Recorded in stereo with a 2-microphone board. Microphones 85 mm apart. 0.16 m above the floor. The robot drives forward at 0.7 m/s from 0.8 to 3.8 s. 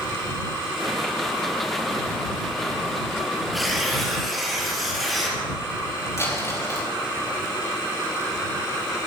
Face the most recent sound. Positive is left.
turn(degrees=35)  # may be behind; listen again after turning